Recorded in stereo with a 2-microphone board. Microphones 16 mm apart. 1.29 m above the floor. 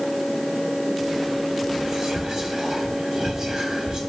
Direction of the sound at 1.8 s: 45° right (ahead or behind).